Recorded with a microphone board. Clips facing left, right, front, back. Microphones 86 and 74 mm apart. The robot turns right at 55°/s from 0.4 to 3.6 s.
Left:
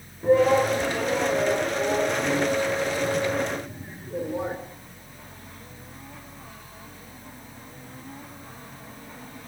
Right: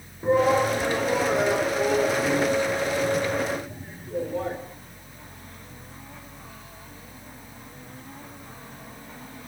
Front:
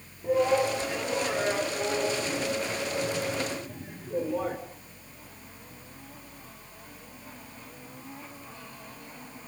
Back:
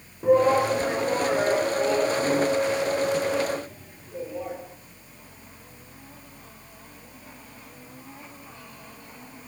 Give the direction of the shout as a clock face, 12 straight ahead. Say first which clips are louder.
Left 2 dB, back 5 dB; 5 o'clock.